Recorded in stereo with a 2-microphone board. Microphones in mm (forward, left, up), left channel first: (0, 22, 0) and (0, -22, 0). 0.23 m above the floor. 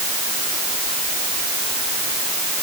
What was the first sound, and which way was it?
Only background noise.